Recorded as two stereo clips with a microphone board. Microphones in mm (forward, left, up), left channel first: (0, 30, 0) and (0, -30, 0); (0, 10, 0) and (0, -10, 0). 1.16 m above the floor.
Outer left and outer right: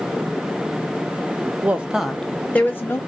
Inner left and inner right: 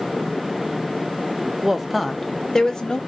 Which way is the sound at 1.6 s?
25° right (ahead or behind).